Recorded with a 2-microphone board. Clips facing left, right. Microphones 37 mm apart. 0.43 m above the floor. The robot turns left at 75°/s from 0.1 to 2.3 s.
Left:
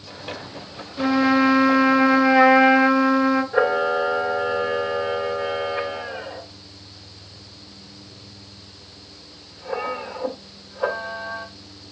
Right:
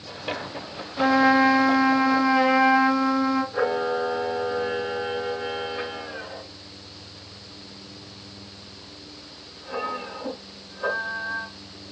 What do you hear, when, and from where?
1.0 s a trumpet: 160° right, 0.9 m; by 3.4 s 100° left, 0.9 m
3.5 s a camera shutter: 55° left (ahead or behind), 1.9 m